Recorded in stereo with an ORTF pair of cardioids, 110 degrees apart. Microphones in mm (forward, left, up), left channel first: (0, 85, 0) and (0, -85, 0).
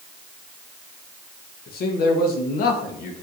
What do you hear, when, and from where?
1.7 s a man speaking: 65° left, 1.4 m